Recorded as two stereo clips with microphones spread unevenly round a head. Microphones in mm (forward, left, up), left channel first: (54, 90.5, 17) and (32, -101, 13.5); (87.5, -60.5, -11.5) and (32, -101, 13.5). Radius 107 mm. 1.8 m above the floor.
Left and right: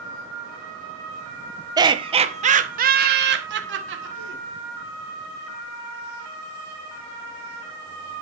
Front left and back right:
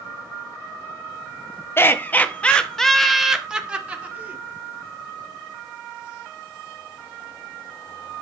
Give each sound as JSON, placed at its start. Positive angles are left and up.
{"t": 1.8, "sound": "laughter", "azimuth_deg": -25, "distance_m": 1.5}